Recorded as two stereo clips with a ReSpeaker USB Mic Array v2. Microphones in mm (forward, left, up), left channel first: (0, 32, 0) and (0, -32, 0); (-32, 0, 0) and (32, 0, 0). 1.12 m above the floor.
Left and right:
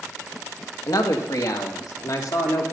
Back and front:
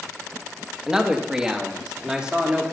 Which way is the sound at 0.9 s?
80° left.